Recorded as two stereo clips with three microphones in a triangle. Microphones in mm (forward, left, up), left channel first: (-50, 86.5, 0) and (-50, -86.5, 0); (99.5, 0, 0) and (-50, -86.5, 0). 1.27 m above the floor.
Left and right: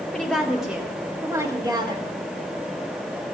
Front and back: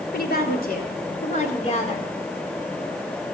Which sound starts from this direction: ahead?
A woman speaking, at 0.1 s.